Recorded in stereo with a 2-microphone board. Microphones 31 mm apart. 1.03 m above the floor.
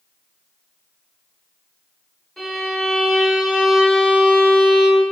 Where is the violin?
25° left (ahead or behind), 1.3 m.